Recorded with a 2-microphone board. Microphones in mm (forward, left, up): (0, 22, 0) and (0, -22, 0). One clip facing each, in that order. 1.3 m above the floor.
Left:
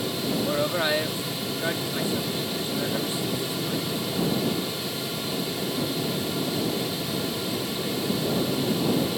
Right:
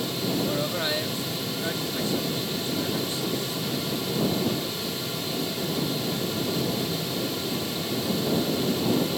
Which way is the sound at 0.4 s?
20° left (ahead or behind).